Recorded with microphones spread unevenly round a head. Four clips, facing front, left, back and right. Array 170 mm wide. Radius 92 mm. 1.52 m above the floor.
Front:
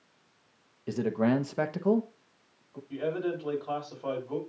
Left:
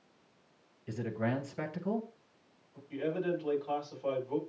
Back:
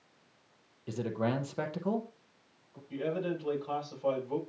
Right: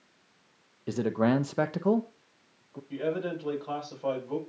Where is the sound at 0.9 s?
70° right, 0.9 m.